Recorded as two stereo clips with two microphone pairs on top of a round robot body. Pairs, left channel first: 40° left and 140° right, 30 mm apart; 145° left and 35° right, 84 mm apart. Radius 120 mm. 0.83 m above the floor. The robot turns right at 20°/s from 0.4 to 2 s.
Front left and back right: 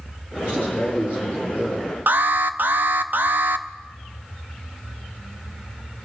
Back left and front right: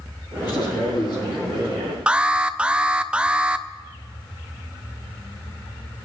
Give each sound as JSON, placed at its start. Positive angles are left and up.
{"t": 0.4, "sound": "a man speaking", "azimuth_deg": 165, "distance_m": 7.0}
{"t": 2.1, "sound": "an alarm", "azimuth_deg": -115, "distance_m": 0.6}